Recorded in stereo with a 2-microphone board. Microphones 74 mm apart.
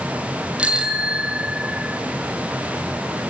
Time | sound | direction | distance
0.6 | a bicycle bell | 15° right (ahead or behind) | 2 m